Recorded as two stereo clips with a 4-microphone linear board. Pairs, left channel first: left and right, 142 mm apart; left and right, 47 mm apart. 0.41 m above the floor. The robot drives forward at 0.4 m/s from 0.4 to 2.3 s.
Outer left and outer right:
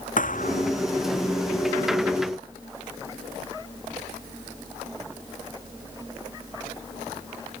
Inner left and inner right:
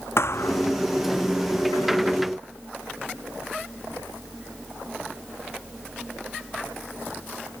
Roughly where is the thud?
Left.